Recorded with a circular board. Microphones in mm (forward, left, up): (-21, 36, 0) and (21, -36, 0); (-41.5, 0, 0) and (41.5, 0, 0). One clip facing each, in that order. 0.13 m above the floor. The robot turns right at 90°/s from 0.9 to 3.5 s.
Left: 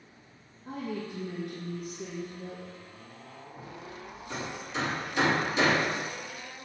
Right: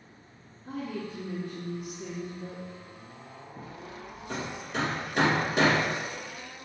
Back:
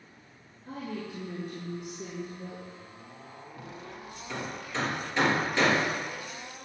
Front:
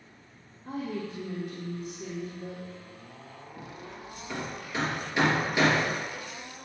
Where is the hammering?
80° right, 2.5 m.